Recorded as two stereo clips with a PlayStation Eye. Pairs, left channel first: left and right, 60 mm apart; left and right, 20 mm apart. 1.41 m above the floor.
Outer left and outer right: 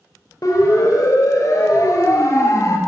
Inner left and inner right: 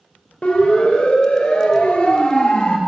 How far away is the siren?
About 5.5 m.